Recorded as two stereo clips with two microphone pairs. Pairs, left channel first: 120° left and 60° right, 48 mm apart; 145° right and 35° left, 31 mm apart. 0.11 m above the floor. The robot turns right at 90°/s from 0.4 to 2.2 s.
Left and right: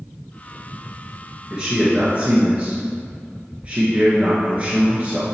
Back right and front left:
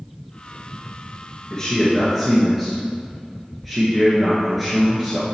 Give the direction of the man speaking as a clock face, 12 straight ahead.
4 o'clock.